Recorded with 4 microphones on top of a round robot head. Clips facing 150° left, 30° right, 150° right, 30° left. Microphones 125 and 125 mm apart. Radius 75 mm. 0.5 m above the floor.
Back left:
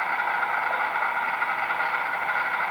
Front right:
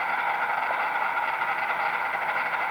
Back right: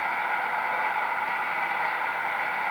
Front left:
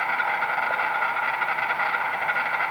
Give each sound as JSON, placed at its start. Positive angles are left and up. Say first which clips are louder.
{"t": 0.0, "sound": "an insect", "louder": "even, front left 2 dB", "azimuth_deg": 40, "distance_m": 3.0}